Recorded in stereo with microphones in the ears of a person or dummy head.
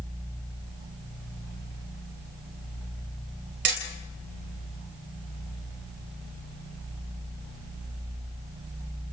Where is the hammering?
60° right (ahead or behind), 3.5 m.